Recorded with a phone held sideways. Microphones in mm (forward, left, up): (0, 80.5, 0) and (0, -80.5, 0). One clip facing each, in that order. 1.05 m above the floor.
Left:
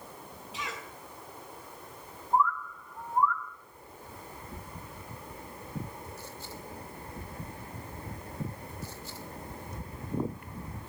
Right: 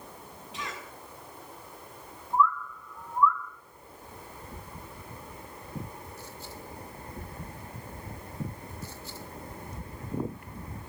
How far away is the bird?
About 0.9 m.